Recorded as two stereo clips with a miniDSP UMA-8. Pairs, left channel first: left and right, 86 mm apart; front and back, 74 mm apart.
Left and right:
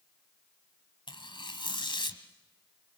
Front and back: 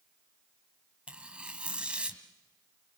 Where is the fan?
No fan in this recording.